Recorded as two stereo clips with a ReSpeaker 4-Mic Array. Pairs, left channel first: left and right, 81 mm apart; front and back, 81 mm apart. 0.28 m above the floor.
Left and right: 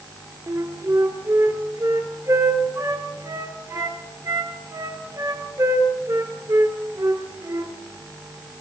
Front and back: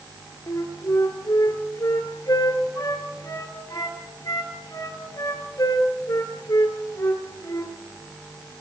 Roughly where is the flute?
Ahead right.